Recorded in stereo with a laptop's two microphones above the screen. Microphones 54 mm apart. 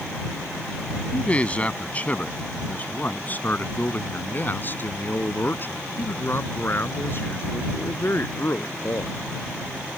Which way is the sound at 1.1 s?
25° left (ahead or behind).